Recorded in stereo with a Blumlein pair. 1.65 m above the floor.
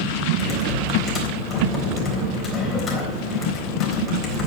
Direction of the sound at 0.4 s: 25° left.